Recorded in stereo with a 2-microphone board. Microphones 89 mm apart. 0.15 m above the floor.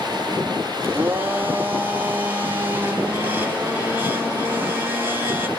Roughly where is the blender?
Right.